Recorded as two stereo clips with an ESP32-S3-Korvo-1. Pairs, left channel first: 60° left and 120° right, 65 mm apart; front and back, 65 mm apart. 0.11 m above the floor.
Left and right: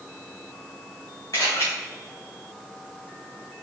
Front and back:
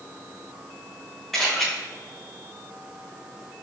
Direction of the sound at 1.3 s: 90° left.